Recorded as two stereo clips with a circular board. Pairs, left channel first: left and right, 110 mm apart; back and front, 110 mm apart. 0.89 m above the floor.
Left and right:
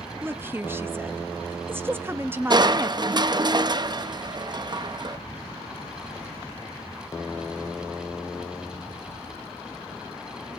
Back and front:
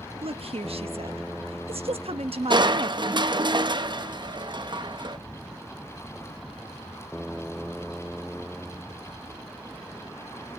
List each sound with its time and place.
0.2 s a woman speaking: 20° right, 1.1 m
2.5 s crushing: 45° right, 0.6 m